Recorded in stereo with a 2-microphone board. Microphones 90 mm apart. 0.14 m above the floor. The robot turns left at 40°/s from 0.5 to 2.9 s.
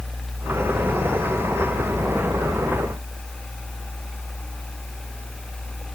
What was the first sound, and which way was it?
Only background noise.